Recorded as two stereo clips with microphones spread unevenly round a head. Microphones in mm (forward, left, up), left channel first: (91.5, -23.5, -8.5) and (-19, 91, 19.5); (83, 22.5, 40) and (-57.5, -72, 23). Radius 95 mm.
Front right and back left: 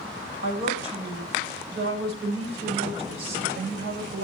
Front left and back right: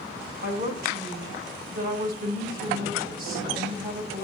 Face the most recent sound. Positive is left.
turn(degrees=170)